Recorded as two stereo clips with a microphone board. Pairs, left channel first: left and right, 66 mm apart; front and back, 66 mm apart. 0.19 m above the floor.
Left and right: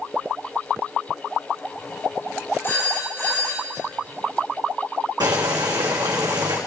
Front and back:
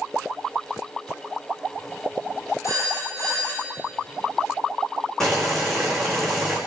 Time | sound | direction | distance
2.6 | a phone ringing | 35° left | 5 m
5.2 | boiling | 85° right | 2.5 m